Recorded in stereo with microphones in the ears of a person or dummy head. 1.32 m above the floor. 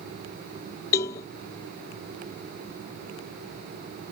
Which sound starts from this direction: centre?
A cowbell, at 0.9 s.